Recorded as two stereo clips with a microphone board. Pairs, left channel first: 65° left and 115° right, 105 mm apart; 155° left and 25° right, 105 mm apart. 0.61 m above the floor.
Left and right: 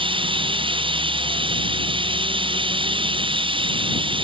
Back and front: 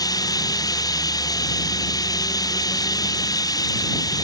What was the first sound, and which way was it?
Running water, 150° right.